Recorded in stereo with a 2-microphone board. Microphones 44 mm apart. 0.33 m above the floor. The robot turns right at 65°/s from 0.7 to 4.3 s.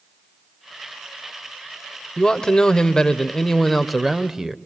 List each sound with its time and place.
2.2 s a man speaking: 20° left (ahead or behind), 0.9 m; by 4.5 s 10° right (ahead or behind), 0.9 m